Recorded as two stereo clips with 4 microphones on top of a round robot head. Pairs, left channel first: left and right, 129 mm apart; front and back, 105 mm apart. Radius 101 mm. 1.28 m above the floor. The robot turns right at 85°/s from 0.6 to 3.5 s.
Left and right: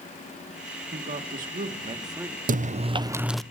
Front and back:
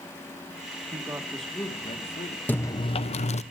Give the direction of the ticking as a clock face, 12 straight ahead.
No ticking in this recording.